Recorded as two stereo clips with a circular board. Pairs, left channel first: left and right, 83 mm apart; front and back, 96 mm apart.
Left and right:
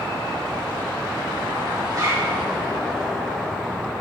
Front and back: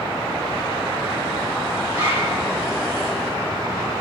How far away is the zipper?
About 1.9 m.